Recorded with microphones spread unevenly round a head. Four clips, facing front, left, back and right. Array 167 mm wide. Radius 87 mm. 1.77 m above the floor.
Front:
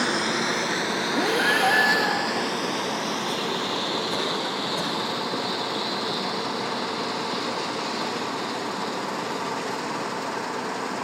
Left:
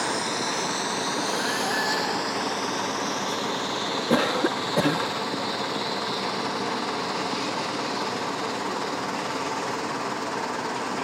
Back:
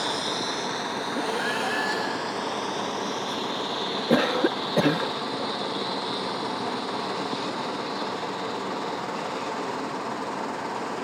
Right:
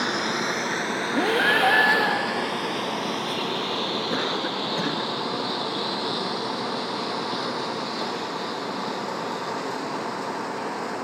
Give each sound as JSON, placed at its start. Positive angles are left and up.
{"t": 0.0, "sound": "a lawn mower", "azimuth_deg": -25}
{"t": 1.1, "sound": "breathing", "azimuth_deg": -75}
{"t": 4.1, "sound": "a cough", "azimuth_deg": 155}